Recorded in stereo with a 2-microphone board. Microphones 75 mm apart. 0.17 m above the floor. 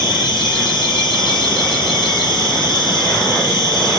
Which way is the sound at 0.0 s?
90° left.